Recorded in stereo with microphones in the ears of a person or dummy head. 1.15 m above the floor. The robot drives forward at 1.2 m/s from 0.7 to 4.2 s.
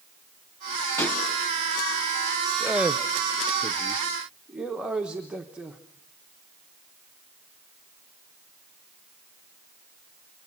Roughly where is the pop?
Centre.